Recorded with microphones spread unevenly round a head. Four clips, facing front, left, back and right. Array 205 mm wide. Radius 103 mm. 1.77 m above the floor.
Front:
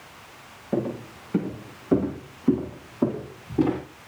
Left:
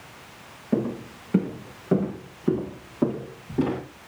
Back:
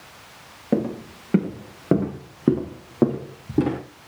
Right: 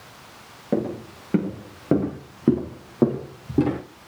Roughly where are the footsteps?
Behind right.